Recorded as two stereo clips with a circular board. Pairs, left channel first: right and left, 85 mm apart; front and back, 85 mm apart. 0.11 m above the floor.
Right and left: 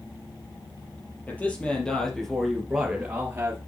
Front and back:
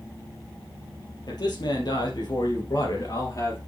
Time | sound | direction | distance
1.3 | a man speaking | 20° right | 3.5 m